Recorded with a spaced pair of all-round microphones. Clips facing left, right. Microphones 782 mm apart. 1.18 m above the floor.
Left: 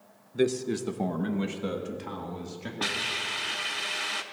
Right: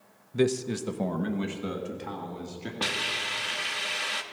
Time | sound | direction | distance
0.3 | a man speaking | 45° right (ahead or behind) | 0.5 m
2.8 | a hiss | 15° right (ahead or behind) | 0.7 m